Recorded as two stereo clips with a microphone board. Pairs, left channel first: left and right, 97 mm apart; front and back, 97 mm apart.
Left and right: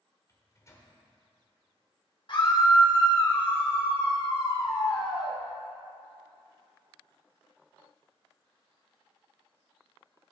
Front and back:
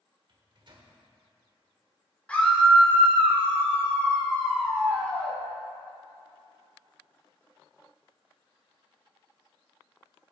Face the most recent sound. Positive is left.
turn(degrees=75)